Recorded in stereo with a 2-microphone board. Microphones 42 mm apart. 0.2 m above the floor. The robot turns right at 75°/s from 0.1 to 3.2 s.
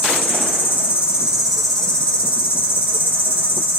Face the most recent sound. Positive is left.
turn(degrees=120)